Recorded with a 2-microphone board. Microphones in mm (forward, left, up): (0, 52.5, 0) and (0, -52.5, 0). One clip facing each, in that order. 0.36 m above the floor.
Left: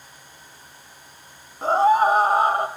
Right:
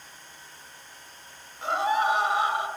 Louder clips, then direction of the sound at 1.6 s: Left 8 dB; 35° left (ahead or behind).